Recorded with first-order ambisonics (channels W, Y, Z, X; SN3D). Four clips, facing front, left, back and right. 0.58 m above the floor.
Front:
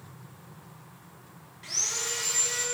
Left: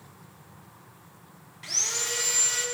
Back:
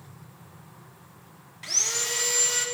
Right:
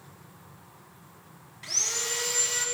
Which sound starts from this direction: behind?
Sawing, at 1.6 s.